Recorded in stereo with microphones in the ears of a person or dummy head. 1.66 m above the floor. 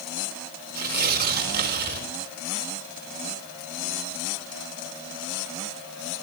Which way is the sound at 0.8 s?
55° right (ahead or behind).